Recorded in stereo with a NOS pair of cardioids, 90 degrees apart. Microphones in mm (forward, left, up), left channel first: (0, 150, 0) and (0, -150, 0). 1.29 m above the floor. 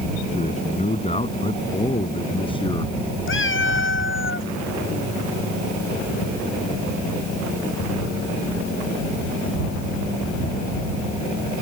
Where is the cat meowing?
40° left.